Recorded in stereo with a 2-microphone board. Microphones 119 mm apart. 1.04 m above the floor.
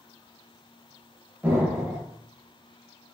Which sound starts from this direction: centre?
An explosion, at 1.4 s.